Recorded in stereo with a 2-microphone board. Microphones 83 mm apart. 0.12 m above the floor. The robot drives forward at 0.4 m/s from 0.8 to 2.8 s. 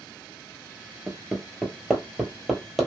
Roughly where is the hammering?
Centre.